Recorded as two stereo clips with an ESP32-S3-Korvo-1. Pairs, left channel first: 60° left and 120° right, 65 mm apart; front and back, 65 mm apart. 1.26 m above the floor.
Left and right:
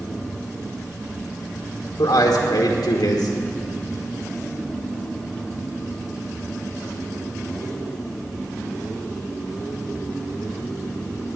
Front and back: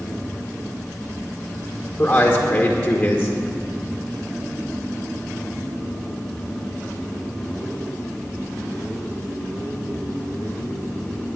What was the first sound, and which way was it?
A man speaking, 75° left.